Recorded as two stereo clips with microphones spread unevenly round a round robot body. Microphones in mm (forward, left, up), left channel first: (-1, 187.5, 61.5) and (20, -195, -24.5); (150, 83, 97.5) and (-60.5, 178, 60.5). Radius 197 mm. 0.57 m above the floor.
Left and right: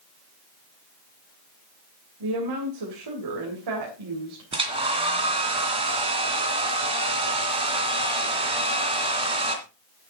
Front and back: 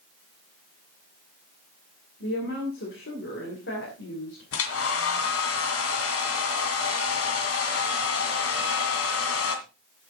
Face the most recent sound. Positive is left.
turn(degrees=-10)